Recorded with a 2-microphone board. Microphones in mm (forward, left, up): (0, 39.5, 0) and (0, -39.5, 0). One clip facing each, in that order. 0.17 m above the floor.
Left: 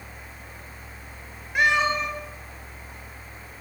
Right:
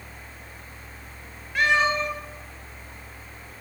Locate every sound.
1.6 s a cat meowing: 20° left (ahead or behind), 1.3 m